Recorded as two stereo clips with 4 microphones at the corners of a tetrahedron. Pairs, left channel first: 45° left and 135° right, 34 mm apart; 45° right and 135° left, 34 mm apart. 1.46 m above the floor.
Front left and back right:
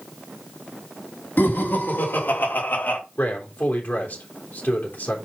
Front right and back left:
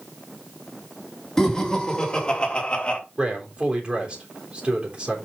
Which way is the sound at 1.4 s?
30° left.